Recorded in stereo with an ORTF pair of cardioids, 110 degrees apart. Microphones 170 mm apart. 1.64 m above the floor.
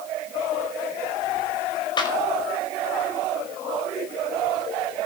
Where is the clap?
25° left, 5.5 m.